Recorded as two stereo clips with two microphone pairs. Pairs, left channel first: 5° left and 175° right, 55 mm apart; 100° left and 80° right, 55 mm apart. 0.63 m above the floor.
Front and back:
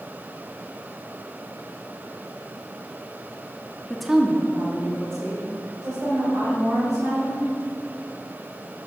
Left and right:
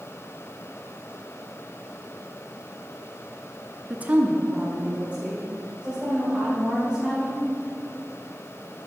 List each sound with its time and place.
3.9 s a woman speaking: 50° right, 0.7 m; by 7.4 s 150° right, 5.5 m